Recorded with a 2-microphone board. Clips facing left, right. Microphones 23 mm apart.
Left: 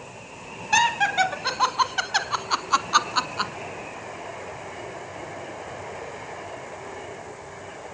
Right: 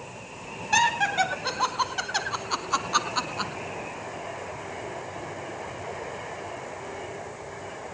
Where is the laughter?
10° left (ahead or behind), 1.4 m; by 3.5 s 20° left (ahead or behind), 1.8 m.